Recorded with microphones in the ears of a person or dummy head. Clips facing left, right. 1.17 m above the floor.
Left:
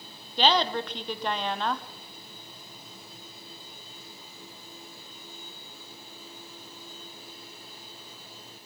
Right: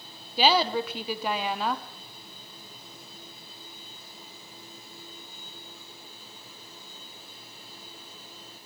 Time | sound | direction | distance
0.4 | a woman speaking | 5° right (ahead or behind) | 0.8 m